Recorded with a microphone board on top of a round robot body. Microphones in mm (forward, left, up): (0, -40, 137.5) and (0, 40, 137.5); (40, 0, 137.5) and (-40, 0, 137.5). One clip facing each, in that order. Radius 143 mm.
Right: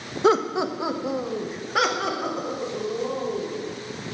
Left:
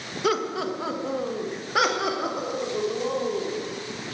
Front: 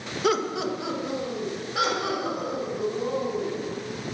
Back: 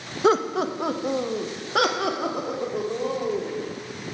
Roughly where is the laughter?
Behind right.